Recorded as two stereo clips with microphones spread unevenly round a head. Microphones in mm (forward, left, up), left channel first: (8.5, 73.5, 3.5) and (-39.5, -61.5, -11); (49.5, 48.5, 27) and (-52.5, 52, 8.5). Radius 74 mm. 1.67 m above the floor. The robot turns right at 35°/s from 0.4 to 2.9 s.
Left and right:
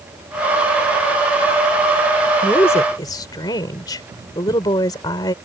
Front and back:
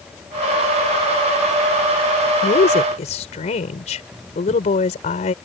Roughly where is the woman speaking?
Ahead.